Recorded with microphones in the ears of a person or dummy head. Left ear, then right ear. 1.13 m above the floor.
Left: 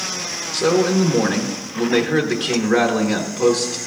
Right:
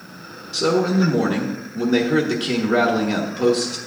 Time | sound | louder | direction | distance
0.5 | a man speaking | left 2 dB | centre (ahead or behind) | 1.1 m